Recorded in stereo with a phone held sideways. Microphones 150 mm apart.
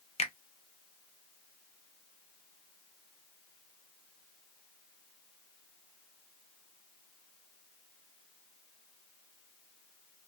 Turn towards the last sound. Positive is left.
turn(degrees=45)  # may be behind; listen again after turning